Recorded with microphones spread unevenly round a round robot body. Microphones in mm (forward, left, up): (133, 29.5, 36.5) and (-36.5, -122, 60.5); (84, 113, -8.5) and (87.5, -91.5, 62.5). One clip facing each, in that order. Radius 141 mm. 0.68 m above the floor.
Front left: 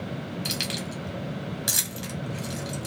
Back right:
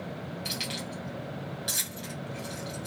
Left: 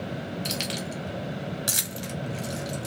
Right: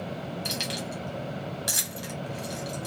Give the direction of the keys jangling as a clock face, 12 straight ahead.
11 o'clock.